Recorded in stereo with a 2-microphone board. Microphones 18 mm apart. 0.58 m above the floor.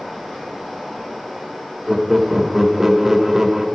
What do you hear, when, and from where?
0.0 s running water: 10° left (ahead or behind), 4 m
1.9 s laughter: 10° right (ahead or behind), 0.9 m